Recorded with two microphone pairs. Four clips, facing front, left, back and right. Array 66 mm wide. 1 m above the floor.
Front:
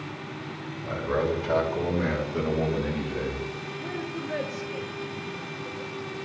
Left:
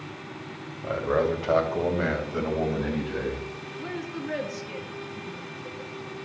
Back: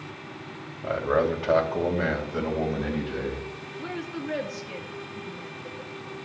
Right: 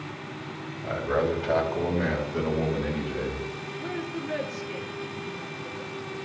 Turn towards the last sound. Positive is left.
turn(degrees=145)